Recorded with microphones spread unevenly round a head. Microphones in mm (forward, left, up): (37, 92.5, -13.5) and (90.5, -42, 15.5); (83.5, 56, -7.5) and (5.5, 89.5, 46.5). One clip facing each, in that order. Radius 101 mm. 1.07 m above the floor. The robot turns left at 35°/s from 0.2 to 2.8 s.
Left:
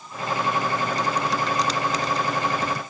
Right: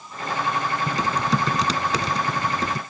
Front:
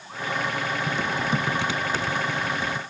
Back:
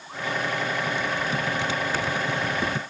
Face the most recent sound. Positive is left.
turn(degrees=-145)